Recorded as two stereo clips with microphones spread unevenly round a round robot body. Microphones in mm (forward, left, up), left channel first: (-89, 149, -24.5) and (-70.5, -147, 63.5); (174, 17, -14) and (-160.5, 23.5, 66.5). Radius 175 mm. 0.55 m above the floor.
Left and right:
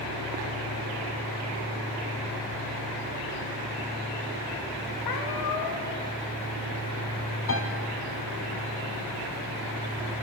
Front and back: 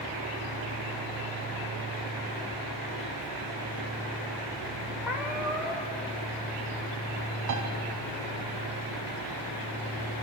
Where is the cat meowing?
95° left, 4.5 m.